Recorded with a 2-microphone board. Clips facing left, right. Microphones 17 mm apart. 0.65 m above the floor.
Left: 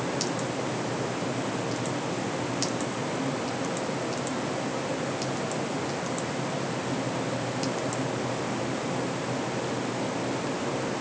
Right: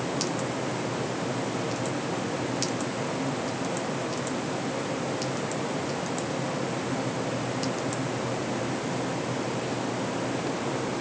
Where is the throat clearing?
I don't hear throat clearing.